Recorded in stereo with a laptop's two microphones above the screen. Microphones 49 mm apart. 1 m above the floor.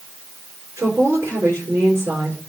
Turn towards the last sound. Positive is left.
turn(degrees=-75)  # may be behind; listen again after turning